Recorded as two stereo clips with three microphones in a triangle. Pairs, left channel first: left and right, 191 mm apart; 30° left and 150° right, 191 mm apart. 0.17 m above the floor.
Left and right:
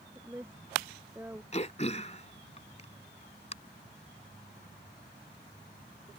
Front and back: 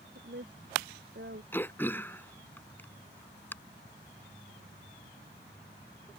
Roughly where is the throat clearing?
Left.